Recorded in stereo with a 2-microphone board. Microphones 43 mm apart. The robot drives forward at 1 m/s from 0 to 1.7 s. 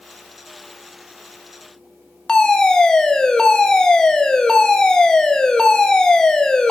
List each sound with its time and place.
2.3 s a fire alarm: 15° left (ahead or behind), 1.5 m